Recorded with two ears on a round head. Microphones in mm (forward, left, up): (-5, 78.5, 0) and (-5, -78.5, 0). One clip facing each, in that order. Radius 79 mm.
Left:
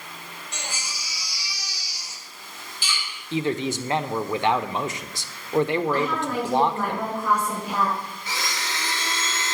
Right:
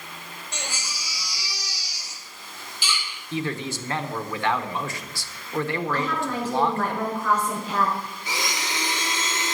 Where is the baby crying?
55° right (ahead or behind), 4 m.